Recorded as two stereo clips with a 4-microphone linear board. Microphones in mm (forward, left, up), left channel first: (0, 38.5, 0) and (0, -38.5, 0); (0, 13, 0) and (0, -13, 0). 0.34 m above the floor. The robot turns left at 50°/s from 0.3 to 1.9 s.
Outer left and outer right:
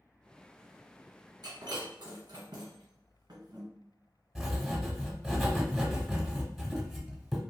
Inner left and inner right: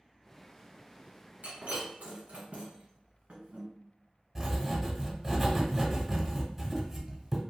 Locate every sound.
1.4 s breaking glass: 65° right (ahead or behind), 1.6 m; by 3.6 s 70° right (ahead or behind), 1.6 m
4.3 s writing: centre (ahead or behind), 0.9 m